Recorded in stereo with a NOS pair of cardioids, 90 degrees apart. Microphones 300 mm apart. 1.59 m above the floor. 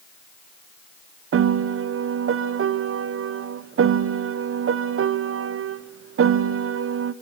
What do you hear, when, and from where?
1.3 s a piano: 45° right, 0.9 m